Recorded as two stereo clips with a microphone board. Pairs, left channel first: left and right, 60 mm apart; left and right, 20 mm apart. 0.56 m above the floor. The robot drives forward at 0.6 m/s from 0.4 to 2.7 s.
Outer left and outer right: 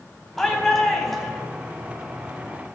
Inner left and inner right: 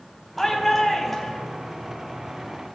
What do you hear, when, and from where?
0.4 s a shout: 5° left (ahead or behind), 3.5 m